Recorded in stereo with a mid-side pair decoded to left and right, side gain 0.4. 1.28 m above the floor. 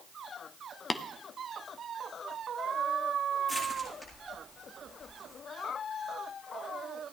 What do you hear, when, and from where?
0.9 s tapping: 25° left, 0.8 m
3.5 s crushing: 15° left, 7.5 m